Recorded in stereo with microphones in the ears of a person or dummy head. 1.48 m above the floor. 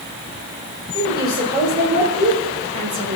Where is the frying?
I don't hear frying.